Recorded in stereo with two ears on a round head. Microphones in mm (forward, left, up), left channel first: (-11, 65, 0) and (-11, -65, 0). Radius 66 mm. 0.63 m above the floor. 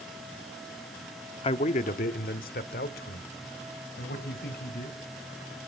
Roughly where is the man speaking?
Left.